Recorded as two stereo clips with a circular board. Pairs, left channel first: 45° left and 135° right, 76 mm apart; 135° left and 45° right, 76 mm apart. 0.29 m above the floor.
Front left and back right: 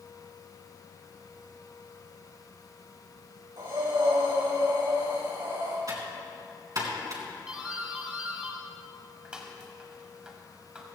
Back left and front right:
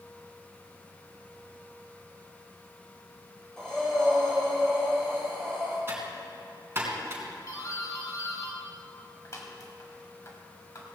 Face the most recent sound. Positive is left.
turn(degrees=150)